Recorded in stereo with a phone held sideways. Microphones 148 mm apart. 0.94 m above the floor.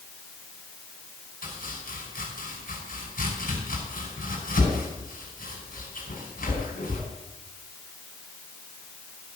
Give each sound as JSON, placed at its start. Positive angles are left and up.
{"t": 1.4, "sound": "chopping", "side_deg": 75, "distance_m": 5.0}